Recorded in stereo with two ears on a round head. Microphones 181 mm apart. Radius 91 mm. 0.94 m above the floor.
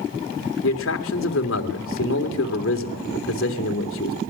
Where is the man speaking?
70° left (ahead or behind), 3.5 m.